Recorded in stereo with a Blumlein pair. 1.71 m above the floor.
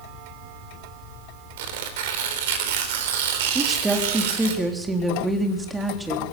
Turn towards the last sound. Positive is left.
turn(degrees=-10)